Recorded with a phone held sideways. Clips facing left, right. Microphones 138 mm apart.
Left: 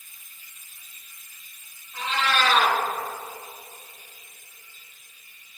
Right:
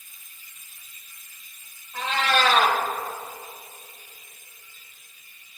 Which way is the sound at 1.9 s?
60° right (ahead or behind).